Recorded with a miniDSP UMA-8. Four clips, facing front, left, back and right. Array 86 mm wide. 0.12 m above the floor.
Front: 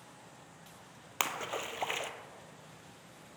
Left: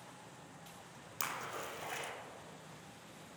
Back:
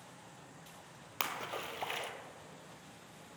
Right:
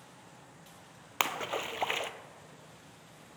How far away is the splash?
About 0.6 m.